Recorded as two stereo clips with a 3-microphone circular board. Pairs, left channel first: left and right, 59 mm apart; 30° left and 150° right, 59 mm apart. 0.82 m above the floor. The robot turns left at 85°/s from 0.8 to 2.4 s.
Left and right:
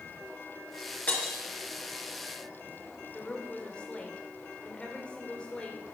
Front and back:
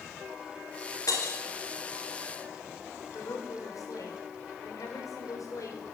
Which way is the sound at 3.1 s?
20° left.